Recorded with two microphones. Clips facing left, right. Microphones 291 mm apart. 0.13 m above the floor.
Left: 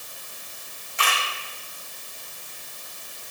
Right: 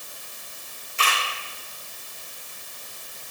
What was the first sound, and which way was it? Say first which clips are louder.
A camera shutter: even; 35° right (ahead or behind).